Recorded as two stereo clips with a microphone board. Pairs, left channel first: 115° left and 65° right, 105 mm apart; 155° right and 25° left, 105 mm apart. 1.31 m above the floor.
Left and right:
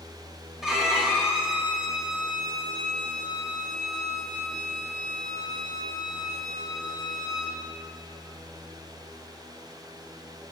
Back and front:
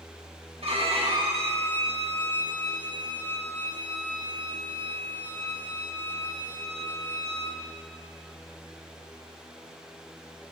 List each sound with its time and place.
0.6 s a violin: 20° left, 1.4 m